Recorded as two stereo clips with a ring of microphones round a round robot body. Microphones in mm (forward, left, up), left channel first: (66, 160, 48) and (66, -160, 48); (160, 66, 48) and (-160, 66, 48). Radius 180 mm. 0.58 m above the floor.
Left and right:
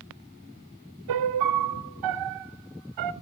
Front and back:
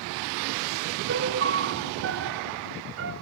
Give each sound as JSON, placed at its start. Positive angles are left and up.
{"t": 1.1, "sound": "a piano", "azimuth_deg": -125, "distance_m": 0.8}